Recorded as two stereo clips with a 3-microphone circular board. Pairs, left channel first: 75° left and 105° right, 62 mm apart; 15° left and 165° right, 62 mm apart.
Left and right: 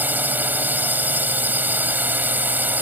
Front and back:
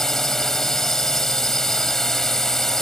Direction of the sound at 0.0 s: 65° right.